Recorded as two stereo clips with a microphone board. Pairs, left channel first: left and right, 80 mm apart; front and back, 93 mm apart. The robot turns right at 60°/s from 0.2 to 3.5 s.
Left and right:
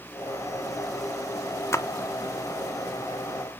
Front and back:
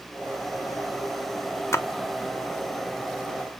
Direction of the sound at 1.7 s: 50° left.